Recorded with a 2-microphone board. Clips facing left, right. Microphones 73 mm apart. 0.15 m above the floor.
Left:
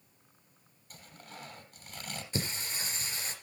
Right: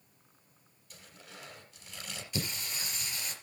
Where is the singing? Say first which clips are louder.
Left 1 dB; 35° left (ahead or behind), 3 m.